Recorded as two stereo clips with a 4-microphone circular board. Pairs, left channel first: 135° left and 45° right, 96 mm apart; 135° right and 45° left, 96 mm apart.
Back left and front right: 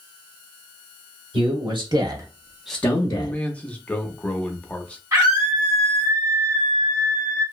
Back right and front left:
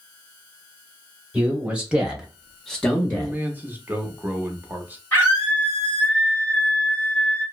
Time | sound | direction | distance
1.3 | a man speaking | 30° right | 1.5 m
3.1 | a man speaking | 75° left | 0.6 m
5.1 | a scream | 80° right | 1.7 m